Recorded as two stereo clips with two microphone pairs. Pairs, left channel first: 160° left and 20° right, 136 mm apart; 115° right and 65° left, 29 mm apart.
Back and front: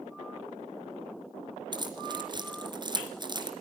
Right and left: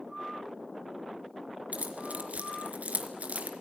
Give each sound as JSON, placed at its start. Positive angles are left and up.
{"t": 1.7, "sound": "keys jangling", "azimuth_deg": 40, "distance_m": 3.5}